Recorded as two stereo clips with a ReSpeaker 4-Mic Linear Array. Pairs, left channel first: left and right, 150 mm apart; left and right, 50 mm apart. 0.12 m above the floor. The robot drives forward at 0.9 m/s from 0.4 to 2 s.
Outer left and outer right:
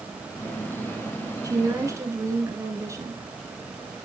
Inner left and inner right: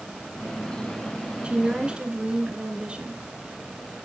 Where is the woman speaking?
20° right (ahead or behind), 1.3 m.